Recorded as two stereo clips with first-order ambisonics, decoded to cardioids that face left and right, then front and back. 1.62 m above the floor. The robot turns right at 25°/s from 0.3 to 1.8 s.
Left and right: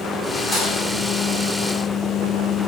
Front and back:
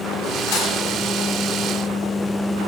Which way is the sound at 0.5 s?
15° left.